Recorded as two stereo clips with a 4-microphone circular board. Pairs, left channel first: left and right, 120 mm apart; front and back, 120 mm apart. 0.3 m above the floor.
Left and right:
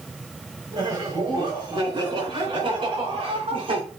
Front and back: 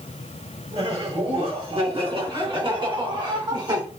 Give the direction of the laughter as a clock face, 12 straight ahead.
5 o'clock.